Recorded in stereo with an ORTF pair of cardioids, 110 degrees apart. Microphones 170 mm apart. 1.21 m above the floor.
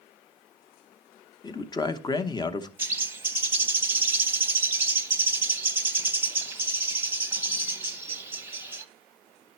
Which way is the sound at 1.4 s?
25° left.